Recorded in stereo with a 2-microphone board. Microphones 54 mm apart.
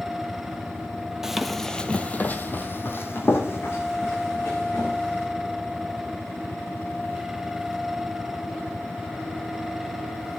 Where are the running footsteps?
10° right (ahead or behind), 0.9 m; by 5.3 s 55° left (ahead or behind), 3 m.